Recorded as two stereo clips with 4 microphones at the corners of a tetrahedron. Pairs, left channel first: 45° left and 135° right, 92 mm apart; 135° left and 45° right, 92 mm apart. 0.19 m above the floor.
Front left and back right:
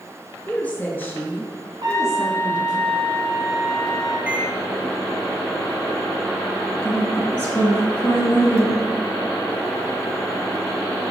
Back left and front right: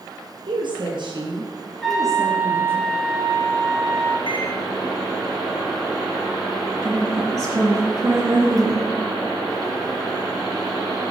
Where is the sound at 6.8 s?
20° right, 2 m.